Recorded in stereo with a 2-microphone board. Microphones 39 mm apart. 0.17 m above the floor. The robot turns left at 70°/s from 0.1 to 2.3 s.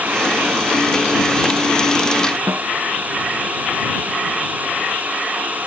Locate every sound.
2.5 s a snare drum: 80° right